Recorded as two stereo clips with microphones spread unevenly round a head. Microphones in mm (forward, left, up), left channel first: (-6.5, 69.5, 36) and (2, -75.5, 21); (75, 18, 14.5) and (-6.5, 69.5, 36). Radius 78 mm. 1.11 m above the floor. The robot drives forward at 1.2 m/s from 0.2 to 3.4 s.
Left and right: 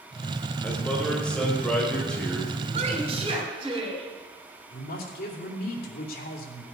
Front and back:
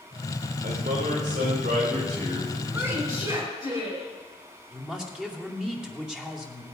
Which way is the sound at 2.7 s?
135° right.